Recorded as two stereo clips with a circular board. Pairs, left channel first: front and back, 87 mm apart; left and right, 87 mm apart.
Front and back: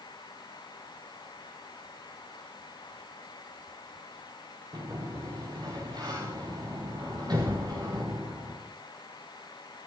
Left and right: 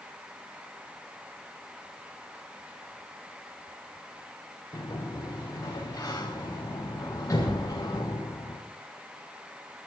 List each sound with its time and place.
4.7 s a sliding door: 140° left, 9 m